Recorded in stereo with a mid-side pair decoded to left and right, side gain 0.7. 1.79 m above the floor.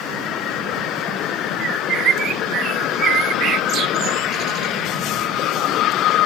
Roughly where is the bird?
Ahead right.